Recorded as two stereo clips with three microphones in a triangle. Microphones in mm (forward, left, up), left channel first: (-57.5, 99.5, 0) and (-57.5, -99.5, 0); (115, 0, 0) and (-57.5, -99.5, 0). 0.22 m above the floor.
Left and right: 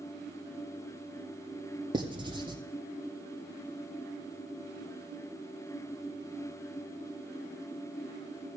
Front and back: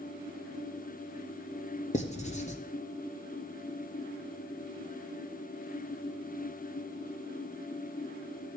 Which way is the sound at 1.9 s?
25° right.